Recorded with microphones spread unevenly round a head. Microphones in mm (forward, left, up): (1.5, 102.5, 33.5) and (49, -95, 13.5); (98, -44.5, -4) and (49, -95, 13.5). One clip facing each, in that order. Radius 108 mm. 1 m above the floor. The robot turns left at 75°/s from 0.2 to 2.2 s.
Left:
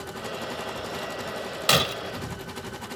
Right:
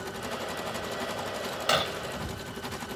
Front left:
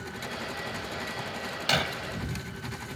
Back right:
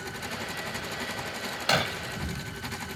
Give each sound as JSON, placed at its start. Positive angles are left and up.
{"t": 1.7, "sound": "breaking glass", "azimuth_deg": 150}